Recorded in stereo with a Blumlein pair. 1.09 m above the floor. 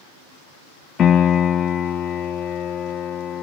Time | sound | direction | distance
1.0 | a piano | 25° left | 0.6 m